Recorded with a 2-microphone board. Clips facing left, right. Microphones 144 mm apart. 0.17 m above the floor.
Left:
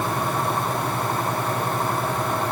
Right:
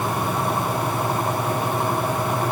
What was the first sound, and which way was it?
Only background noise.